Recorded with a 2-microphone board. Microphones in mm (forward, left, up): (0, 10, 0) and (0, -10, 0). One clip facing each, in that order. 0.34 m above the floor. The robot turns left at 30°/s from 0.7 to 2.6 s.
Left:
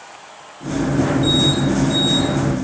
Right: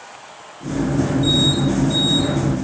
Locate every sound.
Only background noise.